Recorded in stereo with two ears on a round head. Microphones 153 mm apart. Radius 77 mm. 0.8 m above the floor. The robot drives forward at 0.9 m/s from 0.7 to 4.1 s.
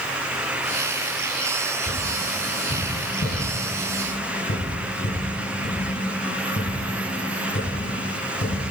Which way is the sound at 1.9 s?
60° left (ahead or behind).